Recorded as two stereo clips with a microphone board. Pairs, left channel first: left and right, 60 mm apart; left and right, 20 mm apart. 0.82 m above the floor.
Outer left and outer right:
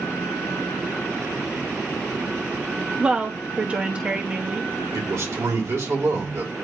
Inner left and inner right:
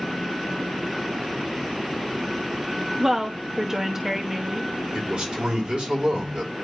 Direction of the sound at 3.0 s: 20° right (ahead or behind).